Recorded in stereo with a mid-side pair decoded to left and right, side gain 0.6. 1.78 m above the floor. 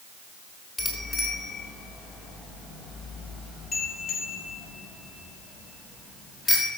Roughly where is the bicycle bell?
Ahead left.